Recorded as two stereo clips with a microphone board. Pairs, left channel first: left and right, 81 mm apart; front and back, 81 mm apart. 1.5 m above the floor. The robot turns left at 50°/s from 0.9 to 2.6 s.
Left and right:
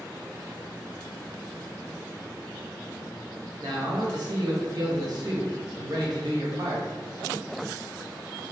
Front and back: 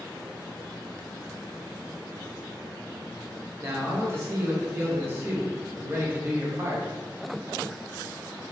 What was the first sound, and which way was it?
A man speaking, 120° right.